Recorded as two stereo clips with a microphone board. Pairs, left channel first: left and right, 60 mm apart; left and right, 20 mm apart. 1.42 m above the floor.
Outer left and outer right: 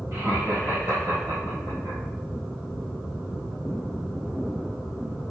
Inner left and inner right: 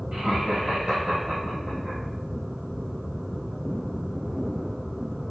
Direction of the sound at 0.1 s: 35° right (ahead or behind).